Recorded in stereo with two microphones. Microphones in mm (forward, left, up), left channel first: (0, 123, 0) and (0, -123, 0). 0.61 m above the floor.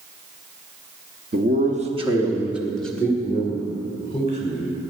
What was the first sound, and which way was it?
A man speaking, 40° right (ahead or behind).